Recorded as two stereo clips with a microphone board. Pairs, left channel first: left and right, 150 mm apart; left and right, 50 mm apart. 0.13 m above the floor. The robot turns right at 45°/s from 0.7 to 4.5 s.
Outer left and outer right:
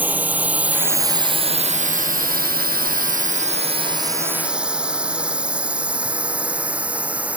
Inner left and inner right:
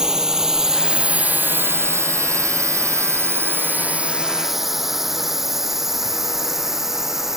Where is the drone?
10° right (ahead or behind).